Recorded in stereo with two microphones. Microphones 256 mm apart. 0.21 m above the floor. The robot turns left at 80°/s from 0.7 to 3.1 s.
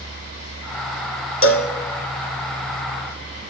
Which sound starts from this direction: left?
A cowbell, at 1.4 s.